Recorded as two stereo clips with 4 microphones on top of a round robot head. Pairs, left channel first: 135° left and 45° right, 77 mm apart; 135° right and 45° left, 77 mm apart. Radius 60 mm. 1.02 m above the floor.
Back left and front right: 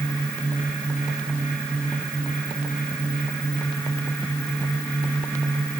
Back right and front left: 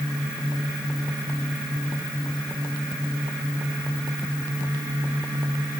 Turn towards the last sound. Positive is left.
No sound to turn to.